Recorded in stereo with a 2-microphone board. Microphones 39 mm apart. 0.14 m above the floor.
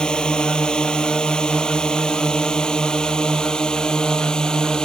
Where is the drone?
25° left (ahead or behind); by 4.9 s 20° left (ahead or behind).